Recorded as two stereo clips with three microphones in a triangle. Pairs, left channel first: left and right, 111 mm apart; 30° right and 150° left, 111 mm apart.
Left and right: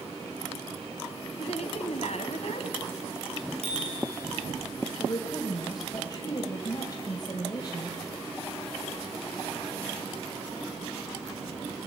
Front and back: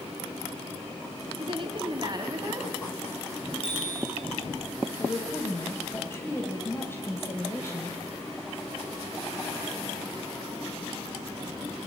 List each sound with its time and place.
1.4 s a woman speaking: 110° left, 3 m; by 2.7 s 95° left, 3.5 m
3.6 s a bicycle bell: 65° right, 6.5 m
5.0 s a woman speaking: 40° left, 2.5 m